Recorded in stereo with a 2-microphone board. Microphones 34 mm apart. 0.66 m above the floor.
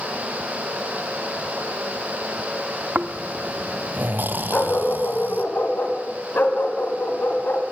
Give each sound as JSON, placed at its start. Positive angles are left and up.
{"t": 3.0, "sound": "snoring", "side_deg": -65, "distance_m": 0.8}
{"t": 4.5, "sound": "a dog barking", "side_deg": 75, "distance_m": 2.0}